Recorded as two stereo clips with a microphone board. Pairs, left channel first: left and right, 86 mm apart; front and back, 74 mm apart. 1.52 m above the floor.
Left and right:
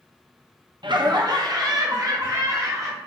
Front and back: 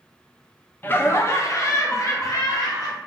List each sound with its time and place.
0.8 s laughter: 65° right, 0.6 m; by 3.0 s 35° right, 1.6 m